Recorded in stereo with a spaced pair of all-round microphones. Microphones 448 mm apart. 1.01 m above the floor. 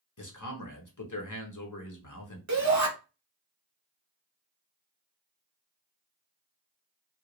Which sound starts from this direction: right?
A shout, at 2.5 s.